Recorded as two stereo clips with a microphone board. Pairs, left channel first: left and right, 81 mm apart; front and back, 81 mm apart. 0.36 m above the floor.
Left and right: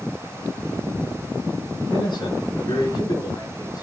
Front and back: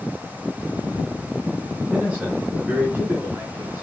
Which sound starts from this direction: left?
A man speaking, at 1.9 s.